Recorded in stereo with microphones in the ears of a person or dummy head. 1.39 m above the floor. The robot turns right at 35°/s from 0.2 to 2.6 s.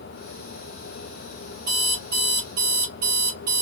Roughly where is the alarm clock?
Behind right.